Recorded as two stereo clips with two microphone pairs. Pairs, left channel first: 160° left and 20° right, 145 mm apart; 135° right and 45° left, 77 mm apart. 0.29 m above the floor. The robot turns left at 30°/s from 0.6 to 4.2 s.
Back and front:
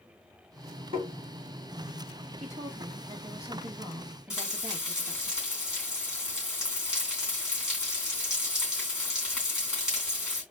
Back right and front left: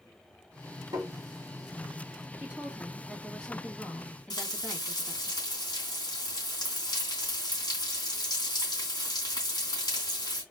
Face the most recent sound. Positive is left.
turn(degrees=-110)